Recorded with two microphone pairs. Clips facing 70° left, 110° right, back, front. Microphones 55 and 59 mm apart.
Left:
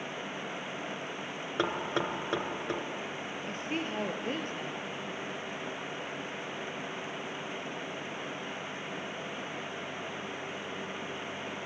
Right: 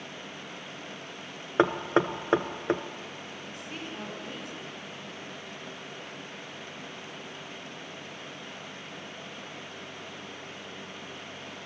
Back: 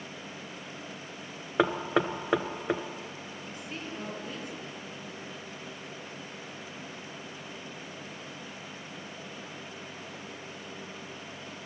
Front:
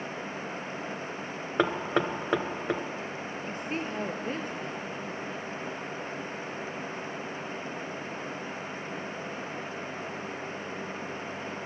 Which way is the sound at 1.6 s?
95° right.